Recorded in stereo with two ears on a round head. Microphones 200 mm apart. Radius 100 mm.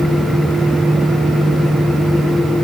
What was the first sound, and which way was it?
Only background noise.